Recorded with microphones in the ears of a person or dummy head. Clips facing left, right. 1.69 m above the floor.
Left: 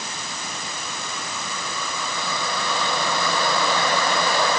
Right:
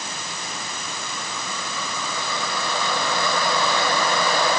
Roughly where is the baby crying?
I don't hear a baby crying.